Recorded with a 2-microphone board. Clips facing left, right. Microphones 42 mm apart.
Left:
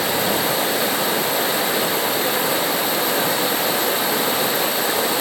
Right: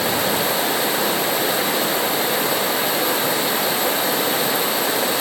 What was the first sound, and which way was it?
Only background noise.